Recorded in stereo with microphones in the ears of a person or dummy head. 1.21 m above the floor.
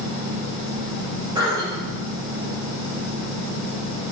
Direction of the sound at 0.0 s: 80° right.